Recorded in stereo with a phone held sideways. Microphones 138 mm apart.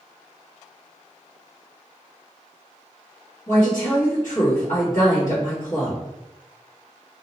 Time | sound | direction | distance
3.5 | a woman speaking | 75° left (ahead or behind) | 1.2 m